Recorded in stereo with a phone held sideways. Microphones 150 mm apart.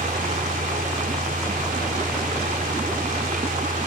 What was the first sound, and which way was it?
A fan, 85° right.